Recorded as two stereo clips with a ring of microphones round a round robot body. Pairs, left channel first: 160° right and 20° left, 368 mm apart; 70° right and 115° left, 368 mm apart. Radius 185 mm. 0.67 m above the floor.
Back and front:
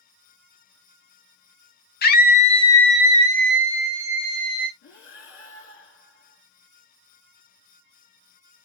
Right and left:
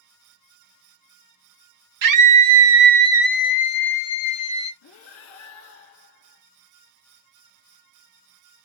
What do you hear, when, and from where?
2.0 s a scream: 140° left, 0.9 m; by 4.7 s 25° right, 1.1 m
4.8 s breathing: 110° right, 1.3 m